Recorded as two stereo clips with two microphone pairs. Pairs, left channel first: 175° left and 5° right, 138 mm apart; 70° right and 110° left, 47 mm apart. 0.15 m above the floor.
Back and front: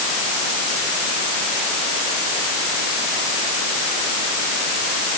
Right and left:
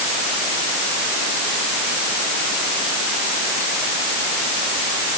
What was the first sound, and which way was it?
Only background noise.